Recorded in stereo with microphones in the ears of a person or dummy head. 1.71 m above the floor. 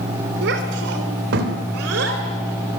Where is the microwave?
No microwave in this recording.